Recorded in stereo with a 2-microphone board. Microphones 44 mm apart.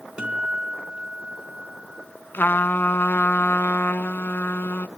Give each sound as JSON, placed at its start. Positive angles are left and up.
{"t": 0.2, "sound": "a guitar", "side_deg": -20, "distance_m": 3.0}
{"t": 2.3, "sound": "a trumpet", "side_deg": 55, "distance_m": 0.7}